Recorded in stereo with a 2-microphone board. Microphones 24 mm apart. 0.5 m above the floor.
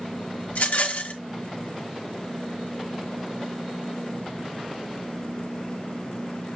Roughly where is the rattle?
Left.